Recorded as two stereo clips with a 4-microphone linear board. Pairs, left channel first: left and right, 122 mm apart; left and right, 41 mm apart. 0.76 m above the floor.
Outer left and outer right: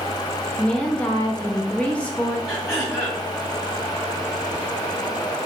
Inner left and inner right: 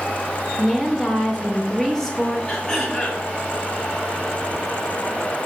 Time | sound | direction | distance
0.6 | a woman speaking | 10° left (ahead or behind) | 0.8 m
2.5 | throat clearing | 25° left (ahead or behind) | 2 m